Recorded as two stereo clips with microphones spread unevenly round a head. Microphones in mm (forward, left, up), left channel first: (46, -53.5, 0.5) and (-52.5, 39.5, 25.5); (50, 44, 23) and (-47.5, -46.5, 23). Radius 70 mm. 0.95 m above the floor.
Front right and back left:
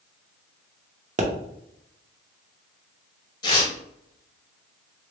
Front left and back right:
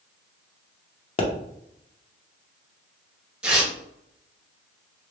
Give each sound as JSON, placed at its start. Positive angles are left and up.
{"t": 1.2, "sound": "a pop", "azimuth_deg": 90, "distance_m": 0.7}
{"t": 3.4, "sound": "tearing paper", "azimuth_deg": -55, "distance_m": 1.0}